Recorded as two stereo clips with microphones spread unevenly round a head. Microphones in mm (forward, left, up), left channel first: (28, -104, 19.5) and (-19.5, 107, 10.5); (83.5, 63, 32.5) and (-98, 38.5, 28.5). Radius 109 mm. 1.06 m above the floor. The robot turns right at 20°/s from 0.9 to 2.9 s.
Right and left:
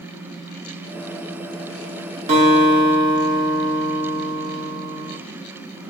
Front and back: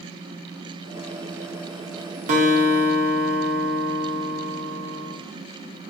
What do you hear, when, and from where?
2.3 s a guitar: 155° left, 0.7 m; by 5.2 s 170° left, 0.7 m